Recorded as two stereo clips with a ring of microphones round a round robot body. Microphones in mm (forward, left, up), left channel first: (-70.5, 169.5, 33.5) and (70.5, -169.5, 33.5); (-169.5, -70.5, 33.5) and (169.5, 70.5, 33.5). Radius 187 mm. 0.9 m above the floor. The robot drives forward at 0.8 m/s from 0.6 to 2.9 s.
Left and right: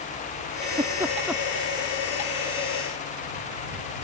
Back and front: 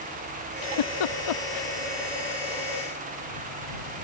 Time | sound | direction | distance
0.6 | a giggle | 140° right | ?